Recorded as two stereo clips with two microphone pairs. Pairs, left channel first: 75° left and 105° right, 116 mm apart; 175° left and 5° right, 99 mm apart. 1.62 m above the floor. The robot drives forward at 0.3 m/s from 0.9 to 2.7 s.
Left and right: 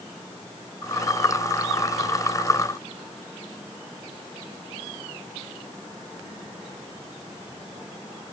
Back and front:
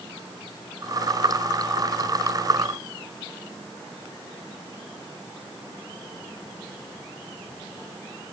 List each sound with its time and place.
Only background noise.